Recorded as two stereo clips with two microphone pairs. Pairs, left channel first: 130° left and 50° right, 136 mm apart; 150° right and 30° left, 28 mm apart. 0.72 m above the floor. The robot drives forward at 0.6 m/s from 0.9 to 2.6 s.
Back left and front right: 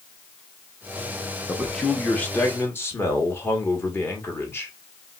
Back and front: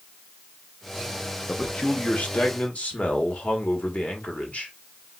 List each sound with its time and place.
1.5 s a man speaking: 130° right, 0.7 m; by 4.7 s 160° right, 1.2 m